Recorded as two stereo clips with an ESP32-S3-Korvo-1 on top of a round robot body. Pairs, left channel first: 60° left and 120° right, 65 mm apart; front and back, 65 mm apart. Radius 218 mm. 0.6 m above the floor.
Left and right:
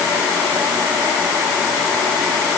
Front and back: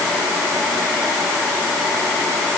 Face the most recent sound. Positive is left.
No sound to turn to.